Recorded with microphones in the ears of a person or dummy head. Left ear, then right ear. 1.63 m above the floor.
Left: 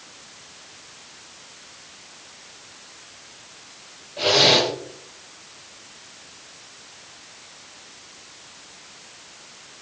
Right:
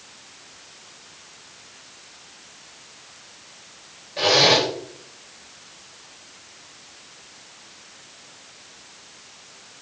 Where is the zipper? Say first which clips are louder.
Even; 50° right (ahead or behind), 4 m.